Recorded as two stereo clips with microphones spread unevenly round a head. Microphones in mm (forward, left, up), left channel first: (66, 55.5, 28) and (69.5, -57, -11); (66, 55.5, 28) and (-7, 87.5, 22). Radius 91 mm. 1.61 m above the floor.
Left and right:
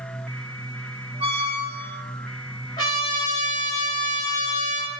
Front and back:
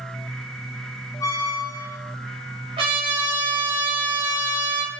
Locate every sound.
1.2 s a squeak: 60° right, 1.1 m
2.8 s a trumpet: 155° left, 3 m